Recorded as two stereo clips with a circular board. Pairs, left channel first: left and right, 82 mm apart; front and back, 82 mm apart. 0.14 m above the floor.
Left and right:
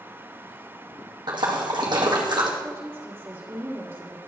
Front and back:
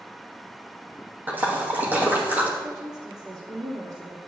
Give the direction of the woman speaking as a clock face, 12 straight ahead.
5 o'clock.